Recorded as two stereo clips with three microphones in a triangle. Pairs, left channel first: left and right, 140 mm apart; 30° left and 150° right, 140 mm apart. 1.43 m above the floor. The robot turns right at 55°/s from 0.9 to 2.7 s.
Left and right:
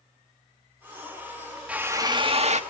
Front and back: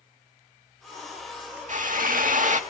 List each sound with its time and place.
1.7 s a drill: 170° right, 1.7 m; by 2.6 s 120° right, 1.7 m